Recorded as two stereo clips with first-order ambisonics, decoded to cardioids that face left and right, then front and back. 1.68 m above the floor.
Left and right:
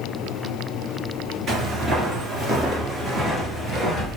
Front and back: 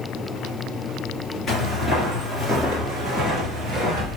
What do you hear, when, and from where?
1.5 s footsteps: 90° right, 1.9 m; by 4.2 s 175° left, 2 m